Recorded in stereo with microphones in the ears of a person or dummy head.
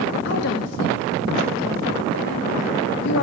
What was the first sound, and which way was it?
A woman speaking, 60° left (ahead or behind).